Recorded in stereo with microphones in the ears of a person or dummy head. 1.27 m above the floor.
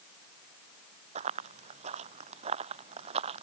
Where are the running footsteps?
45° right (ahead or behind); by 3.4 s 40° right (ahead or behind).